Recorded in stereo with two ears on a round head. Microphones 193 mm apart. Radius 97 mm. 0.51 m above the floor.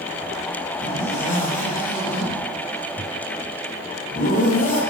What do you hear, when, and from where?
0.8 s a zipper: 40° left (ahead or behind), 9 m